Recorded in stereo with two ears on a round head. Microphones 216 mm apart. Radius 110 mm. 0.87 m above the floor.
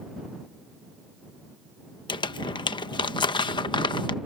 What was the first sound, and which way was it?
Crumpling, 20° left (ahead or behind).